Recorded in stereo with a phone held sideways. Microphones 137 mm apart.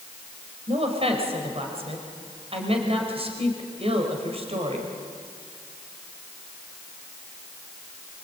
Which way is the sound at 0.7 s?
45° right (ahead or behind).